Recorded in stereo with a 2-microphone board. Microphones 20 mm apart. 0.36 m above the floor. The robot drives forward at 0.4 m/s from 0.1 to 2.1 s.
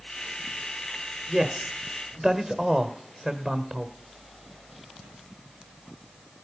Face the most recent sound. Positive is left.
turn(degrees=-35)  # may be behind; listen again after turning